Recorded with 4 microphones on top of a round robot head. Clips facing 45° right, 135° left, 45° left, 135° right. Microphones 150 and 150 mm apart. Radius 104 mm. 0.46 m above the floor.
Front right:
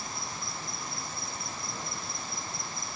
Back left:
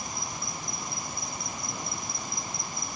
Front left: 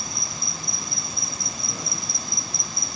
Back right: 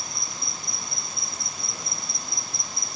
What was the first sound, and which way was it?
An insect, 55° left.